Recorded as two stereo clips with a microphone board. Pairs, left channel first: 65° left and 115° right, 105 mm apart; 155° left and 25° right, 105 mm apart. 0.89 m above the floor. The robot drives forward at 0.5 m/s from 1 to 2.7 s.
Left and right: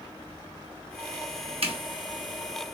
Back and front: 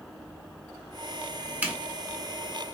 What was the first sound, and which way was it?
A zipper, 95° right.